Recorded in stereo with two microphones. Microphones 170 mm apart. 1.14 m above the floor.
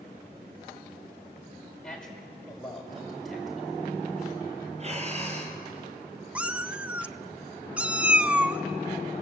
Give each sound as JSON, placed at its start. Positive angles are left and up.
{"t": 1.8, "sound": "a man speaking", "side_deg": 5, "distance_m": 5.0}
{"t": 4.8, "sound": "breathing", "side_deg": -40, "distance_m": 3.5}
{"t": 6.3, "sound": "a cat meowing", "side_deg": -10, "distance_m": 0.5}